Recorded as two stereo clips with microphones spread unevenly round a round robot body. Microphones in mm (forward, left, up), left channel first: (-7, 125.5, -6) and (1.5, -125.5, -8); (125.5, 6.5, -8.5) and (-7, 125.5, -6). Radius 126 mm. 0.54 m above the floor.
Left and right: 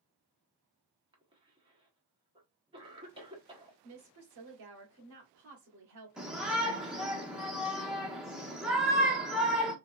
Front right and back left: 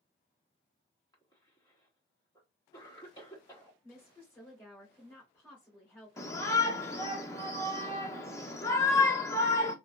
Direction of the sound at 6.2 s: 5° right.